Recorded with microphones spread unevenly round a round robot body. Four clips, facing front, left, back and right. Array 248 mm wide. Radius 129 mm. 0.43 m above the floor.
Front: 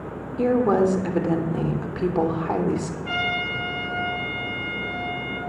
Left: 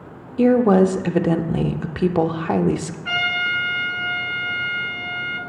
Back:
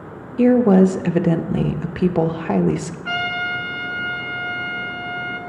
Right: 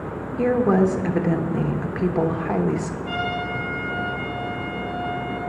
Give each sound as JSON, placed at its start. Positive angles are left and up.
{"t": 0.4, "sound": "a woman speaking", "azimuth_deg": 120, "distance_m": 0.7}
{"t": 3.0, "sound": "a trumpet", "azimuth_deg": 140, "distance_m": 2.5}